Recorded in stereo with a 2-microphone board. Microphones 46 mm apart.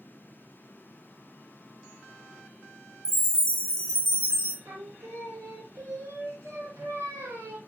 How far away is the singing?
About 0.8 m.